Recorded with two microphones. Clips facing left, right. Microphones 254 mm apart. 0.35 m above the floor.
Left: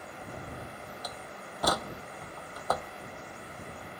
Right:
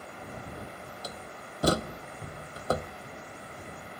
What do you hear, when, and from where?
1.0 s a door slam: 30° right (ahead or behind)